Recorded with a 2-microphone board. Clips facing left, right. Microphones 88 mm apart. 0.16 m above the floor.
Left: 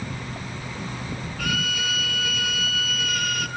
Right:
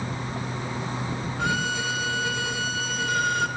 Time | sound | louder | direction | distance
1.4 | a violin | right 2 dB | 30° right (ahead or behind) | 1.2 m